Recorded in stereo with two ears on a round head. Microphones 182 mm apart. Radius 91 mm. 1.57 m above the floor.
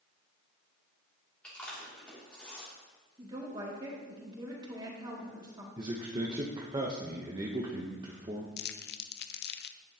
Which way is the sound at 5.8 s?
25° right (ahead or behind).